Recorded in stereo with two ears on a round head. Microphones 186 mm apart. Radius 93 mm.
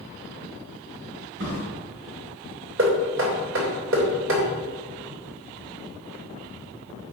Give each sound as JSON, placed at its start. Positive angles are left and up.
{"t": 1.4, "sound": "a drawer", "side_deg": -60, "distance_m": 3.0}
{"t": 2.8, "sound": "knocking", "side_deg": -65, "distance_m": 3.0}